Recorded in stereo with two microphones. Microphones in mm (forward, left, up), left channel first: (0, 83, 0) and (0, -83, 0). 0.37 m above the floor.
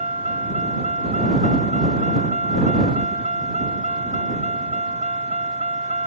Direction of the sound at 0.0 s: 45° right (ahead or behind).